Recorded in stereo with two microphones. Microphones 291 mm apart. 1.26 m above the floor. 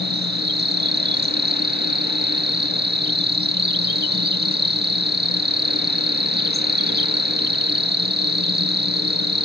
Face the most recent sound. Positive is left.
turn(degrees=-35)  # may be behind; listen again after turning